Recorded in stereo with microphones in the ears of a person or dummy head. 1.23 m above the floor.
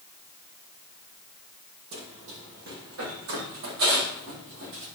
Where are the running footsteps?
60° right (ahead or behind), 2.5 m; by 4.9 s 75° right (ahead or behind), 5 m.